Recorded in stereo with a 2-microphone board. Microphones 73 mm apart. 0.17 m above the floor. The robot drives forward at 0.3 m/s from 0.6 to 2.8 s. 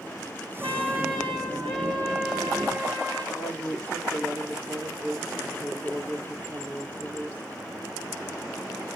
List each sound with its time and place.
0.6 s a trumpet: 5° left (ahead or behind), 3 m
3.3 s a woman speaking: 25° right (ahead or behind), 3 m